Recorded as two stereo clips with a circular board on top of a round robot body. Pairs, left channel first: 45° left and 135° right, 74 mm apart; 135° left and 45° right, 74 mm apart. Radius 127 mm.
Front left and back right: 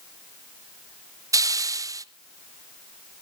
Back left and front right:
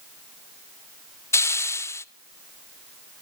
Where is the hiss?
175° right, 0.6 m.